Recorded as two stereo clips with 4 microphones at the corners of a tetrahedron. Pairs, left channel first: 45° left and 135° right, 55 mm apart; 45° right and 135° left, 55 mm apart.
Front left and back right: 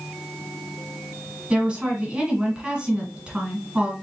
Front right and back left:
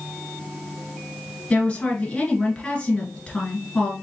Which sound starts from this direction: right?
A woman speaking, at 1.5 s.